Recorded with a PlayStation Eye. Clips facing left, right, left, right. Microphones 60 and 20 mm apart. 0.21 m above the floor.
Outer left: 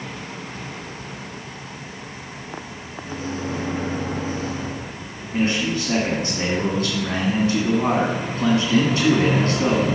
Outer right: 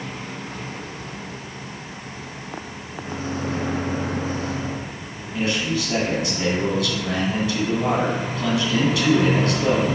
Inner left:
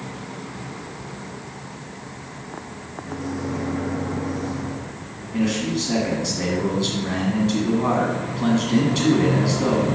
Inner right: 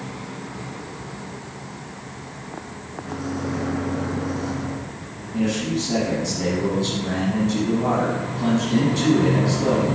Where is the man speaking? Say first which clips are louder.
Outer left 2 dB, even; 35° left (ahead or behind), 2.5 m.